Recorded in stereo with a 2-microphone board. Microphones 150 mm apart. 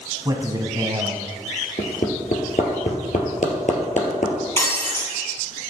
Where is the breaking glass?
20° left (ahead or behind), 2.5 m.